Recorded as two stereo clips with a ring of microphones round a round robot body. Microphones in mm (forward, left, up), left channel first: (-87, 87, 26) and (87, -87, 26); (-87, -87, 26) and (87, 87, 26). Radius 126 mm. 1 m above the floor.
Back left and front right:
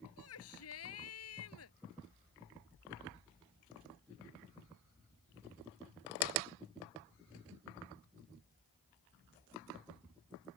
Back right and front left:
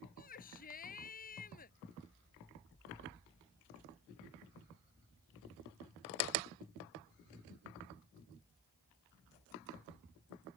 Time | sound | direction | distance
0.2 | a shout | 165° left | ?